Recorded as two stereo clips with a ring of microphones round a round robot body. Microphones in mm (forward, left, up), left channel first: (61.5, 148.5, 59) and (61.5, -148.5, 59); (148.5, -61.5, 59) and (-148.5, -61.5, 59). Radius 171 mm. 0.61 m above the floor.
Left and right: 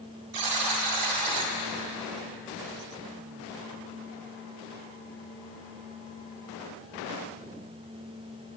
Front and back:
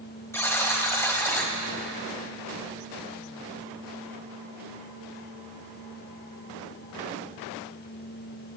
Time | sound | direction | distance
0.3 | a buzzer | 80° right | 1.6 m